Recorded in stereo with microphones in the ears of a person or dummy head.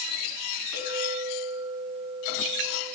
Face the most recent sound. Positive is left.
turn(degrees=-5)  # may be behind; listen again after turning